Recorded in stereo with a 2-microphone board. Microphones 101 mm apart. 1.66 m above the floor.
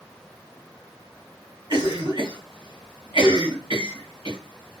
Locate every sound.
1.7 s a cough: 55° right (ahead or behind), 1.5 m